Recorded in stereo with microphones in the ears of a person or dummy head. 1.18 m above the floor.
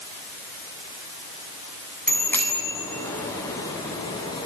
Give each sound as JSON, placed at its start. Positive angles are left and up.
{"t": 2.1, "sound": "a bicycle bell", "side_deg": 5, "distance_m": 8.0}